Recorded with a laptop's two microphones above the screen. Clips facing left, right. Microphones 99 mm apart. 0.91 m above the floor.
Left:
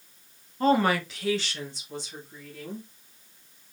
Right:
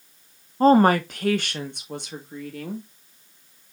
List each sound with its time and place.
0.6 s a woman speaking: 35° right (ahead or behind), 0.7 m; by 2.9 s 70° right (ahead or behind), 1.7 m